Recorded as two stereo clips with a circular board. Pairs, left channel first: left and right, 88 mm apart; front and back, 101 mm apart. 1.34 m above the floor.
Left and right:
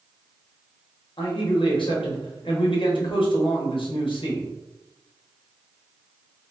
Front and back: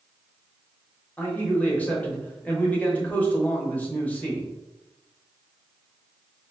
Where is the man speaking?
75° left, 0.9 m.